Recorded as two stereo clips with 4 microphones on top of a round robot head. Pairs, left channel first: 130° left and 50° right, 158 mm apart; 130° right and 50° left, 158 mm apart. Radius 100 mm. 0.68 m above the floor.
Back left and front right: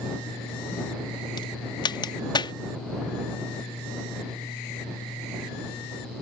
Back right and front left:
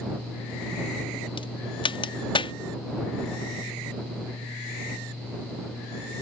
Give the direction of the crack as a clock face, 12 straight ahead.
6 o'clock.